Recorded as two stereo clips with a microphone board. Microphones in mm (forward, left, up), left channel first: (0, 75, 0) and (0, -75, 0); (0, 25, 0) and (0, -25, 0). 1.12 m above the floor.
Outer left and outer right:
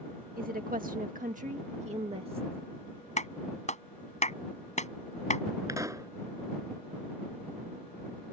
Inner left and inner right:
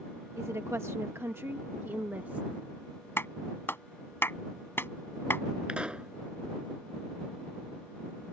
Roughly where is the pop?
Right.